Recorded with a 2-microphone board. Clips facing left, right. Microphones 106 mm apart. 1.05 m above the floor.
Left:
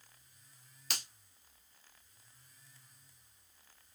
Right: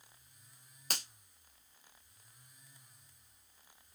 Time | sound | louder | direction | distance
0.9 | a finger snap | right 1 dB | 45° right (ahead or behind) | 0.7 m